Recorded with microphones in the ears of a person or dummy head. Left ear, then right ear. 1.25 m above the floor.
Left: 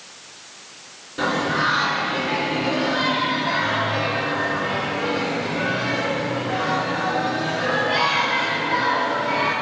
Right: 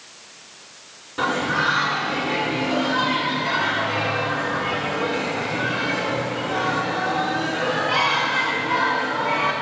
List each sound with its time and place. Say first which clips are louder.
1.2 s singing: even; 35° right (ahead or behind), 2.5 m